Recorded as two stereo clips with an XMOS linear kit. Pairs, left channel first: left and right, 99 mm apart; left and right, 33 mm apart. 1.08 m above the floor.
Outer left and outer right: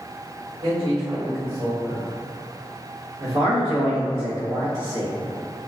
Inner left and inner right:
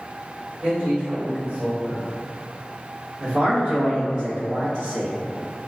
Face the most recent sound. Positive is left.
turn(degrees=-75)  # may be behind; listen again after turning